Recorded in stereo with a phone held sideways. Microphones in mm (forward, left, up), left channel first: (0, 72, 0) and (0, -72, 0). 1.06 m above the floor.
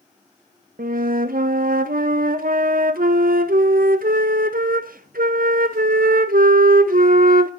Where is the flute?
85° right, 0.5 m.